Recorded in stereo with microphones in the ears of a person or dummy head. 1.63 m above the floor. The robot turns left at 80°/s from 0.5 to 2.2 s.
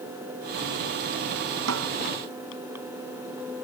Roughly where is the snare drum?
Right.